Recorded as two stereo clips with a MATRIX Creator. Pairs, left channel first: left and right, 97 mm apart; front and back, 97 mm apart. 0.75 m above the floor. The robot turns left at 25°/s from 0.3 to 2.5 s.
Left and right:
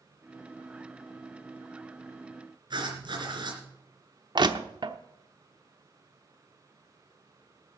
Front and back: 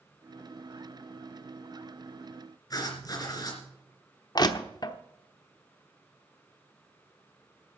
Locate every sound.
2.7 s writing: 50° right, 3 m
4.3 s crushing: 45° right, 0.9 m